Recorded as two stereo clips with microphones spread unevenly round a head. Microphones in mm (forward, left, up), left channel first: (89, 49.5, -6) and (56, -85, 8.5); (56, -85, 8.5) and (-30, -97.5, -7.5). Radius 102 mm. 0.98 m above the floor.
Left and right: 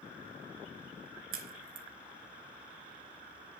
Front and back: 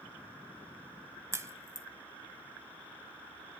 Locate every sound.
1.3 s a crack: 115° right, 1.7 m